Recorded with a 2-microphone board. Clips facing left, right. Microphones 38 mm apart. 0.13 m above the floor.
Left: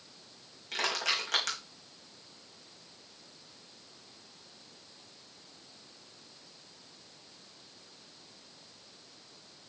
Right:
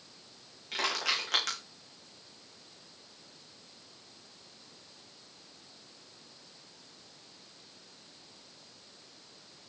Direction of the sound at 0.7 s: 5° right (ahead or behind).